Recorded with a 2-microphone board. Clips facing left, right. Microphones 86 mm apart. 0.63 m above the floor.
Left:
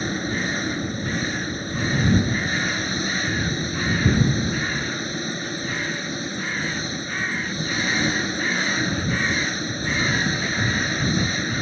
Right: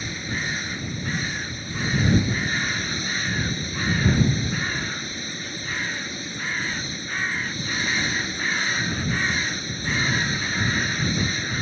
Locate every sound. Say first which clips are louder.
0.0 s an engine running: left 5 dB; 40° left (ahead or behind)